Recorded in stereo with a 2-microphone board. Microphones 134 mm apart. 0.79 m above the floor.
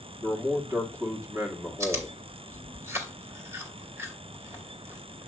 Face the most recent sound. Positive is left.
turn(degrees=-20)  # may be behind; listen again after turning